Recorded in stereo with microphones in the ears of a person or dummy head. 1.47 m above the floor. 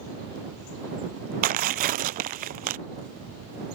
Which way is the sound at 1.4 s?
40° right (ahead or behind).